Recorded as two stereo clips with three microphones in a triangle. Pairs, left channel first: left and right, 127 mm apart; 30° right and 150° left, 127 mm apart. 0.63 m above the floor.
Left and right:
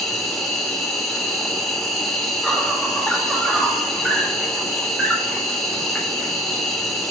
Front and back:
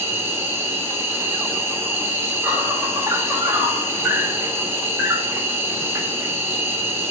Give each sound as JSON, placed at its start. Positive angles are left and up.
{"t": 0.0, "sound": "an insect", "azimuth_deg": 175, "distance_m": 1.6}